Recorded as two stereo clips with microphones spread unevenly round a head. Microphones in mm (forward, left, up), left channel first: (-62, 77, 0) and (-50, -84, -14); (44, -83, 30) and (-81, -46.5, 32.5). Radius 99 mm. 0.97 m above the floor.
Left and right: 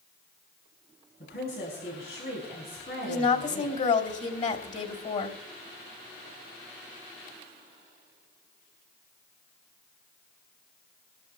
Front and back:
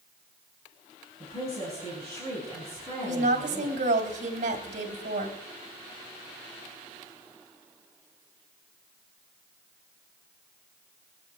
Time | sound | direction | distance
1.2 | a woman speaking | 50° left | 6 m
3.0 | a woman speaking | 135° left | 3 m